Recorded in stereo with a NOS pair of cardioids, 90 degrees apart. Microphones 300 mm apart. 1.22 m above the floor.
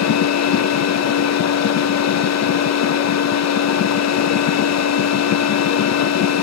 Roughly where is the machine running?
Ahead left.